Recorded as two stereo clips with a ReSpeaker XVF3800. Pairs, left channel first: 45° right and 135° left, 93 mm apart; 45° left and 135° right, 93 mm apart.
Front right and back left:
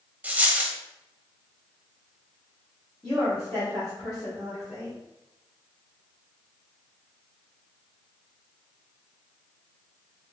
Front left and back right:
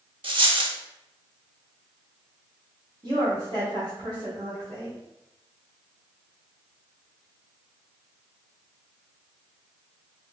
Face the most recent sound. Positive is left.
turn(degrees=-125)